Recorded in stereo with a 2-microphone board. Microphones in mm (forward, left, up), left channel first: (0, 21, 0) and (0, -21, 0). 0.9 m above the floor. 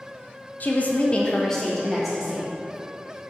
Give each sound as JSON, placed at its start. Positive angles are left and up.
{"t": 0.6, "sound": "a woman speaking", "side_deg": 45, "distance_m": 0.8}